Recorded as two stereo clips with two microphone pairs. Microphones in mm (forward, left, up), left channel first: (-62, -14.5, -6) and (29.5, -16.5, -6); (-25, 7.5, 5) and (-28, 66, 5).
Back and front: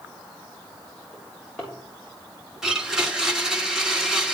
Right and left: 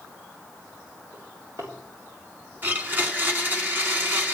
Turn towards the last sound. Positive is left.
turn(degrees=80)